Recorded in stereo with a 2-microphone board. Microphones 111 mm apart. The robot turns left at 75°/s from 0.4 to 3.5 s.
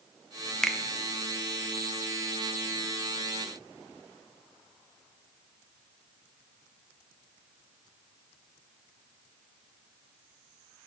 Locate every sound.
0.6 s a finger snap: 5° left (ahead or behind), 0.6 m; by 0.8 s 5° right (ahead or behind), 0.6 m